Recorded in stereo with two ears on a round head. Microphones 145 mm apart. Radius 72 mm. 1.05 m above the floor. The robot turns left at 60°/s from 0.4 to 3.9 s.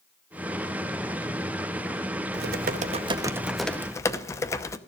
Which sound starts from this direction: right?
Typing on a keyboard, at 2.3 s.